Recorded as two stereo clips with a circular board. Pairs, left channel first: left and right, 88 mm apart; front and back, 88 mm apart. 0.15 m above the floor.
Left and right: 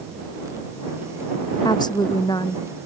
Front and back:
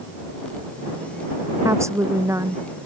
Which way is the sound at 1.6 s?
125° left.